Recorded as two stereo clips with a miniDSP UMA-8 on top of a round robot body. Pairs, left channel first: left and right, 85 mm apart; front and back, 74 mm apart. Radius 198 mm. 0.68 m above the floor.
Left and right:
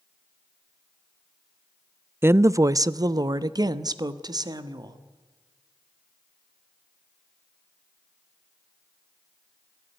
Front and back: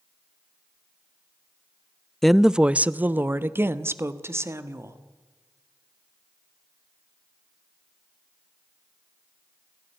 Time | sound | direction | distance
2.2 | a woman speaking | 80° right | 0.7 m